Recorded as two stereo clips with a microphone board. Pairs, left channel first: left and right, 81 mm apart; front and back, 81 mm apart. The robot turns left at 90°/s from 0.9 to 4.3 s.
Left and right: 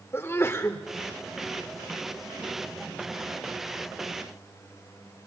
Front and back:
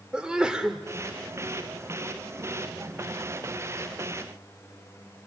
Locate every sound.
0.1 s a sneeze: 110° left, 1.3 m